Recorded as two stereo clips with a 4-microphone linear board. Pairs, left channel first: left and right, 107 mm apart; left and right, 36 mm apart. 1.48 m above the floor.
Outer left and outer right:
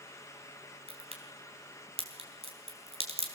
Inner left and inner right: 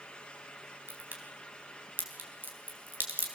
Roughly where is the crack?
Right.